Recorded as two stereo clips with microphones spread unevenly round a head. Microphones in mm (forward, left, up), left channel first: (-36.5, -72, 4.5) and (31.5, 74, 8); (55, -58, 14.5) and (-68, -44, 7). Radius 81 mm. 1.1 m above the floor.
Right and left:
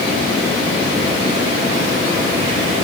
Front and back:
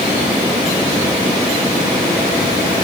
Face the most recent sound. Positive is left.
No sound to turn to.